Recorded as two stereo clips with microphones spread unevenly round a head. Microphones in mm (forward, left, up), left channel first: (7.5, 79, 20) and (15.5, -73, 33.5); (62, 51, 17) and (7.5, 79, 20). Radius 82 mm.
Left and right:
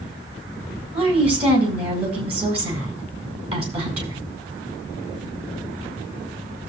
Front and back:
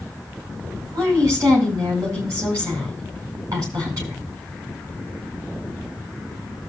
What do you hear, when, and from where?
0.9 s a woman speaking: 140° right, 4.5 m